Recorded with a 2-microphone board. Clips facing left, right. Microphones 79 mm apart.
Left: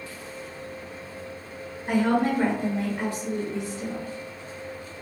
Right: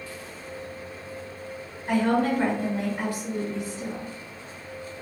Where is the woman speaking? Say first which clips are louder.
Even; 15° left (ahead or behind), 1.9 m; by 4.1 s 25° right (ahead or behind), 1.5 m.